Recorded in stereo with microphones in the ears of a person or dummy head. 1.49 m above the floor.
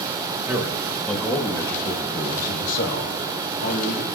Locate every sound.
0.5 s a man speaking: 10° right (ahead or behind), 2.0 m; by 4.0 s 80° left, 3 m